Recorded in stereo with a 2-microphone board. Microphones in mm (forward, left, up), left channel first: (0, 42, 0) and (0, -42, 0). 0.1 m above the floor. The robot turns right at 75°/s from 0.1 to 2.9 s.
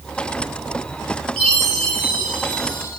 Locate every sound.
1.4 s a chime: 5° left, 3.5 m; by 2.9 s 120° left, 3.5 m